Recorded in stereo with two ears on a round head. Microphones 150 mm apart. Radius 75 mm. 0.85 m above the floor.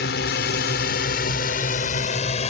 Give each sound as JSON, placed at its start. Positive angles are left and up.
{"t": 0.0, "sound": "a drone", "side_deg": 65}